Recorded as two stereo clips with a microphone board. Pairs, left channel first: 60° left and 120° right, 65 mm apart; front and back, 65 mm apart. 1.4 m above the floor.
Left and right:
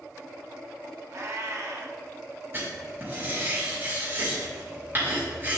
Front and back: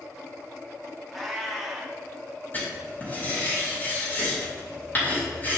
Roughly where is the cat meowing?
Right.